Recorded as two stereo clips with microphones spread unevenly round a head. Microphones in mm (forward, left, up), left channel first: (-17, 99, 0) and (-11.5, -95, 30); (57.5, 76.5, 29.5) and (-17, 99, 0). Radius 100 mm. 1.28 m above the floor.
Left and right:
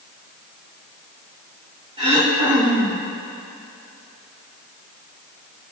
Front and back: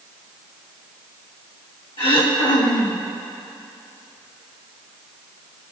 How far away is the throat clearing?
About 2.5 m.